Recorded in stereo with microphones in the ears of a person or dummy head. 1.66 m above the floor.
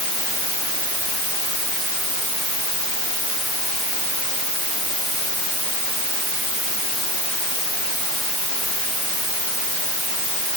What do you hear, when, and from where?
Only background noise.